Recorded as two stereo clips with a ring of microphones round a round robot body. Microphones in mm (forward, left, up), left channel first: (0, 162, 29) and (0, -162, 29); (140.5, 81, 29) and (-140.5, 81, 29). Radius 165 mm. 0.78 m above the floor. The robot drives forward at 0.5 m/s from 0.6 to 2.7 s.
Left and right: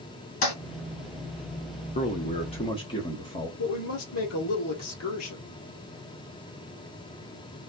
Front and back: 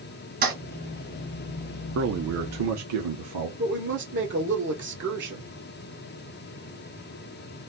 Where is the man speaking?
150° left, 0.7 m; by 3.5 s 165° left, 1.0 m.